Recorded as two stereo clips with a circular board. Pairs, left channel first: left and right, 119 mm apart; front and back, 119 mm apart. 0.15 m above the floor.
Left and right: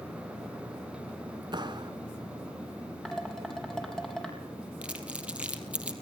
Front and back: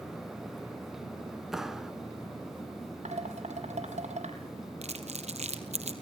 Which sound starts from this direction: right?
A clap, at 1.5 s.